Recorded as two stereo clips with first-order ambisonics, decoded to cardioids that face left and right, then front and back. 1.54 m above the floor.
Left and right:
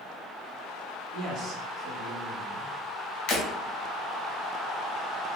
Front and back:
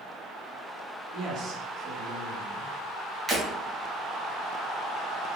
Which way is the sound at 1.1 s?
135° right.